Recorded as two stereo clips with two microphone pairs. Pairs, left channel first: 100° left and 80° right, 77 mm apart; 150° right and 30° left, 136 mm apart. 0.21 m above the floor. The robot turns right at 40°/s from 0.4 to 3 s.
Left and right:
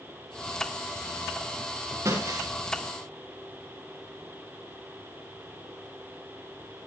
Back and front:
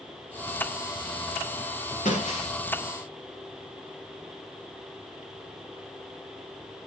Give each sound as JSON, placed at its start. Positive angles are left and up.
{"t": 2.0, "sound": "breaking glass", "azimuth_deg": -125, "distance_m": 6.0}